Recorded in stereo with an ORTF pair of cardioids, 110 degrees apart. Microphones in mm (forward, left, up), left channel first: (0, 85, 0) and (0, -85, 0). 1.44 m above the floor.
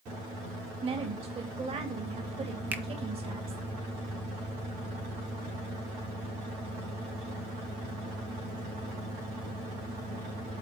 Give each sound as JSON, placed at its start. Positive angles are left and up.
{"t": 0.8, "sound": "a woman speaking", "azimuth_deg": -35, "distance_m": 2.0}
{"t": 2.7, "sound": "a finger snap", "azimuth_deg": -10, "distance_m": 0.8}